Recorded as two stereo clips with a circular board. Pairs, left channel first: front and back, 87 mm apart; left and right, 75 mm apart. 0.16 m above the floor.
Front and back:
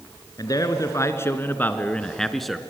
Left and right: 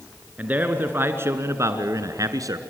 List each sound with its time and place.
0.4 s a man speaking: 25° right, 1.9 m; by 2.6 s 90° right, 1.7 m